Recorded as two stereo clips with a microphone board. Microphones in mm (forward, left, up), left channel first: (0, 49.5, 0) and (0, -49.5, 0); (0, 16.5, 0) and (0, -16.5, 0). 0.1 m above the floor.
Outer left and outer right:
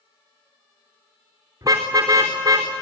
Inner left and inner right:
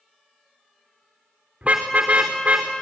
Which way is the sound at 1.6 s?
35° right (ahead or behind).